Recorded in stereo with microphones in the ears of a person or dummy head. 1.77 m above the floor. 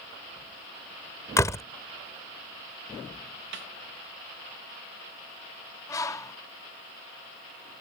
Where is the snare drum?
60° right (ahead or behind).